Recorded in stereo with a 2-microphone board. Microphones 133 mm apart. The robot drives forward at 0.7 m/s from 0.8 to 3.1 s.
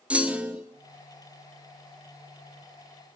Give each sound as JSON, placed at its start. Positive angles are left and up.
{"t": 0.1, "sound": "a clunk", "side_deg": -10, "distance_m": 0.8}